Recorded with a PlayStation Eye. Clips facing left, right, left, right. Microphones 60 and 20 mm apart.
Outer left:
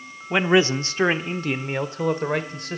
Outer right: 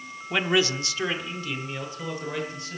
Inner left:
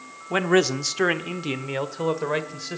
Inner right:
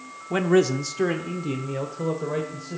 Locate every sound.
0.3 s a man speaking: 20° left (ahead or behind), 0.7 m; by 2.8 s 65° left (ahead or behind), 1.6 m